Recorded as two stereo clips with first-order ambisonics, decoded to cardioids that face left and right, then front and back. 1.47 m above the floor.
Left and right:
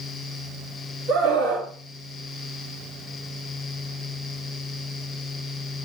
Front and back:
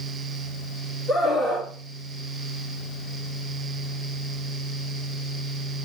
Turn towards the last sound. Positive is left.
turn(degrees=-55)